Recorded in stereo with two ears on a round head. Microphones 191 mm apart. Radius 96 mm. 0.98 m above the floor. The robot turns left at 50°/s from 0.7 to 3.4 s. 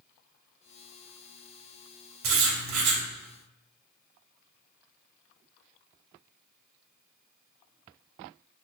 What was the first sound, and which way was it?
Writing, 80° right.